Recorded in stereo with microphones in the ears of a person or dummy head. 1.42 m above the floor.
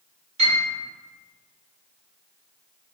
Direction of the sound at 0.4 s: 35° right (ahead or behind).